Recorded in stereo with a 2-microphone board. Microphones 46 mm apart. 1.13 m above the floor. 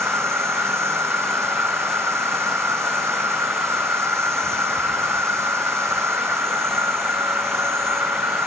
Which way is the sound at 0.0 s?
75° right (ahead or behind).